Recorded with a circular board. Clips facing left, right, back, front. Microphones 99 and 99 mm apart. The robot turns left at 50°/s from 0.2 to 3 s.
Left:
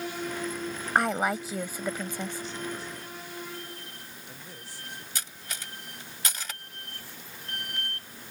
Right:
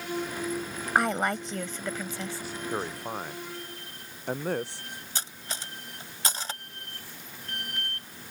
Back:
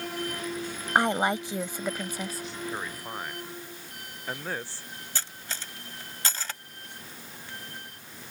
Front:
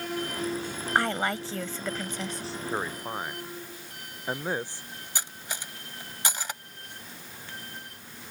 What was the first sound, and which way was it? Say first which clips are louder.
A woman speaking: even, back 3 dB; straight behind.